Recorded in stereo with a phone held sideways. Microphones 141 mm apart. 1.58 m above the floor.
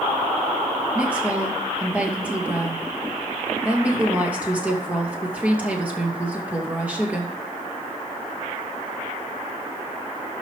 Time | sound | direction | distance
0.9 | a woman speaking | 10° right (ahead or behind) | 2.5 m